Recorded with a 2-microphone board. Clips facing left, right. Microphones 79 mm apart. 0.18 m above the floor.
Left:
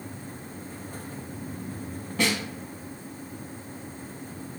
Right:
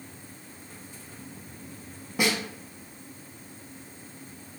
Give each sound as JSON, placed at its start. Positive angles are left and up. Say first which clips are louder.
{"t": 2.2, "sound": "a snare drum", "louder": "even", "side_deg": -15, "distance_m": 0.7}